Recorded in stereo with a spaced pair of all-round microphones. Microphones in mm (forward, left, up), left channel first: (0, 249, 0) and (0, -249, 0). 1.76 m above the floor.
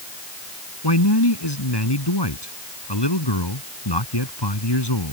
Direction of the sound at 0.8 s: 55° left (ahead or behind).